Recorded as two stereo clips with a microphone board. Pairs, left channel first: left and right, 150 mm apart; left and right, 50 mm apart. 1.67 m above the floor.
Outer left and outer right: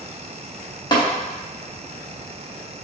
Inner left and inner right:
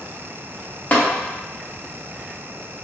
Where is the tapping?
30° left (ahead or behind), 1.0 m.